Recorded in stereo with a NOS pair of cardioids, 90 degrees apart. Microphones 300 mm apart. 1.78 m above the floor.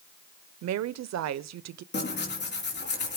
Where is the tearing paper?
35° left, 3.5 m.